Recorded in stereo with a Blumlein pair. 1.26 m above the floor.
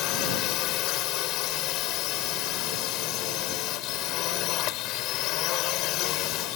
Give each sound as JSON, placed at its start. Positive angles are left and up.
{"t": 0.0, "sound": "a drone", "azimuth_deg": 40}